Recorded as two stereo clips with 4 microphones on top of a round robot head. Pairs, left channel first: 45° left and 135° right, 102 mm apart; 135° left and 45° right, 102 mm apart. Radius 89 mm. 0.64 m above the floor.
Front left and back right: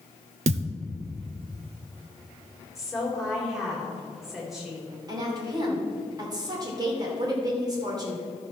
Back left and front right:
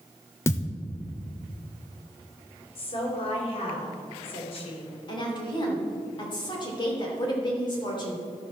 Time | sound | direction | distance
0.5 | a thud | 155° right | 0.6 m
2.8 | a woman speaking | 135° left | 3 m
5.1 | a woman speaking | 175° left | 2.5 m